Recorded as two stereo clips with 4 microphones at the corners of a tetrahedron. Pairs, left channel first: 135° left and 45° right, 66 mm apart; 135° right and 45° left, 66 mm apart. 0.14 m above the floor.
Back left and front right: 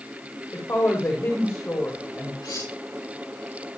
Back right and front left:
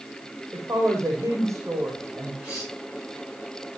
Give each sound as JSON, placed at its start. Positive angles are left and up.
{"t": 0.5, "sound": "a woman speaking", "azimuth_deg": 90, "distance_m": 6.5}
{"t": 2.4, "sound": "cutlery clinking", "azimuth_deg": 125, "distance_m": 8.5}